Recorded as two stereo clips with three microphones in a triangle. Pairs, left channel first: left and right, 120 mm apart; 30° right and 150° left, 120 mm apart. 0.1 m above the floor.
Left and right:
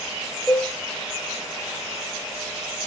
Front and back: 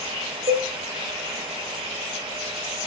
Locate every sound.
0.5 s a cowbell: 175° left, 1.4 m